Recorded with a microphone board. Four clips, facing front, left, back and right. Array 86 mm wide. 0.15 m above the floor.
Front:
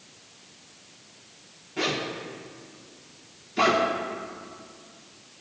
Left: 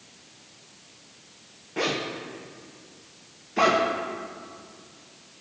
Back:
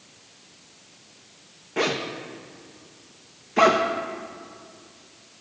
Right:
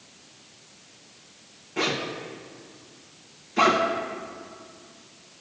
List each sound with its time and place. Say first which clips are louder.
1.8 s a zipper: even, back 3 dB; 165° left, 1.6 m